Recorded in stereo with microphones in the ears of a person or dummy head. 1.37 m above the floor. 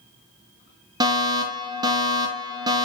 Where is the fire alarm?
25° right (ahead or behind), 2.0 m.